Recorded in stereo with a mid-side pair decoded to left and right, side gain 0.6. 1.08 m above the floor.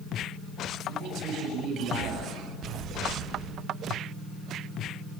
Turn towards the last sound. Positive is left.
turn(degrees=-60)